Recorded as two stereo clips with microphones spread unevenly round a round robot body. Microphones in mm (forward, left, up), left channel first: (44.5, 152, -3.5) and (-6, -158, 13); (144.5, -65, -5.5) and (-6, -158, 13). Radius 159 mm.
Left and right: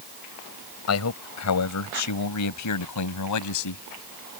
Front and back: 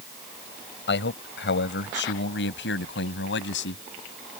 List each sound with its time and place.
0.9 s a man speaking: 40° left; by 3.8 s 55° left